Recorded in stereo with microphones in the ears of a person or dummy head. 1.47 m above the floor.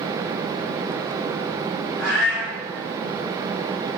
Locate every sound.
2.0 s a cat meowing: centre (ahead or behind), 1.6 m